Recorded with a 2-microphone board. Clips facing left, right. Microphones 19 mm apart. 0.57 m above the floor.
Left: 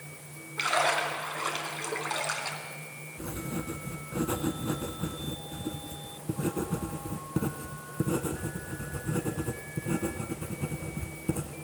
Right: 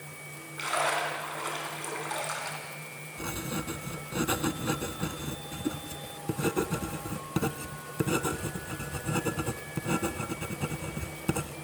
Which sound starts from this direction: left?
A splash, at 0.6 s.